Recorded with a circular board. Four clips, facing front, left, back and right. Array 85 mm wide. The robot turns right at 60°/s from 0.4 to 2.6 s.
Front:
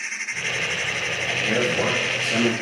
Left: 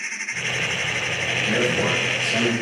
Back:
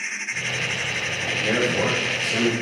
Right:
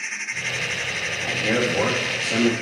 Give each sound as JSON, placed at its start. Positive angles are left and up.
{"t": 1.2, "sound": "a man speaking", "azimuth_deg": -140, "distance_m": 4.5}